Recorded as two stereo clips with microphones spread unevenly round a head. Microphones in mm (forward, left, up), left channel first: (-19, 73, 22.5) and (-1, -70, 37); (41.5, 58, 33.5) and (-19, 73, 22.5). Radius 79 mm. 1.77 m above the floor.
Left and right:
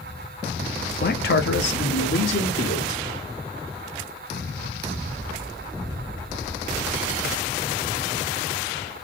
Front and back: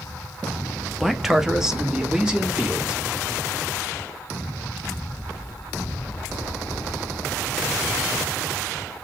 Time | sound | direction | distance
1.0 | a man speaking | 70° left | 0.6 m